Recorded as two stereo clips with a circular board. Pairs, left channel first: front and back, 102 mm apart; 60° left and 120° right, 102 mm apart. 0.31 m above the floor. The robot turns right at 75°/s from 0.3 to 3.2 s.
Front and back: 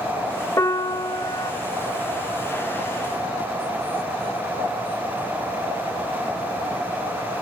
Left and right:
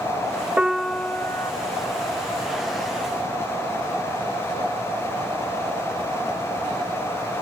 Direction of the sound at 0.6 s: 45° right.